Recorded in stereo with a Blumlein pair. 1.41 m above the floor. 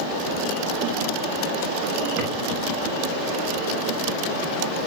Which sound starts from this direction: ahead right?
A drawer, at 2.2 s.